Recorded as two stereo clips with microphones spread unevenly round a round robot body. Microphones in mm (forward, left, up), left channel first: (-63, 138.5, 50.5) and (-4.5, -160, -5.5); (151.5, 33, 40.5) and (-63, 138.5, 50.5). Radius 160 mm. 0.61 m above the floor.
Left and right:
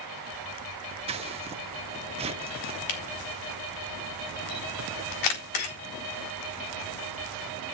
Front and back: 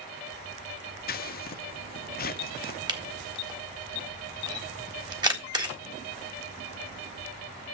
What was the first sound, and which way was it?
Scissors, 30° right.